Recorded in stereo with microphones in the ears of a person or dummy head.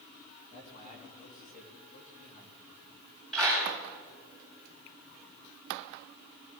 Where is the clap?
5° left (ahead or behind), 8 m.